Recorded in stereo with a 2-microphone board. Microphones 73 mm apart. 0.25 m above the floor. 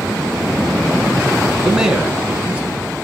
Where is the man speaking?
5° right (ahead or behind), 2.5 m; by 2.9 s 15° right (ahead or behind), 3.5 m.